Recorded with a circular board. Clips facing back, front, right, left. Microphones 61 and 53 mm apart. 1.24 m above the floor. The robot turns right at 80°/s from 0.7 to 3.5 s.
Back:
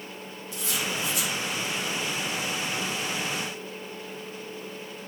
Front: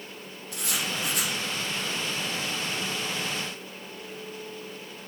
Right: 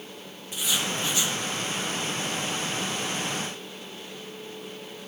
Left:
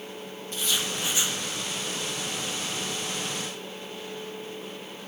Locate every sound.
0.5 s writing: 10° right, 0.9 m; by 1.4 s 45° left, 0.9 m